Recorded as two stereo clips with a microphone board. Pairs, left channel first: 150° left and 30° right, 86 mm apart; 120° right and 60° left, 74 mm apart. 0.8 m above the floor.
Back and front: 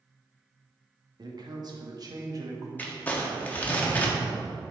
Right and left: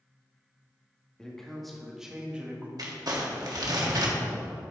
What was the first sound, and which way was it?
A man speaking, 40° right.